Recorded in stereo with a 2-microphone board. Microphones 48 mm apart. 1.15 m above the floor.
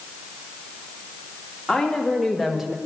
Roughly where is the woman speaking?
Centre.